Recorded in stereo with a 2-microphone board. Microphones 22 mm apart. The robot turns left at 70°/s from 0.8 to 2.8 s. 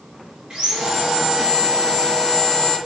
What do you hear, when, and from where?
0.5 s sawing: 75° right, 1.6 m; by 2.8 s 145° left, 1.6 m